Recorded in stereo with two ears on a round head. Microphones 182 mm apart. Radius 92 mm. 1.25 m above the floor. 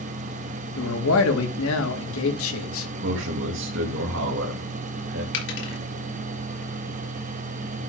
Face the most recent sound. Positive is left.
turn(degrees=65)  # may be behind; listen again after turning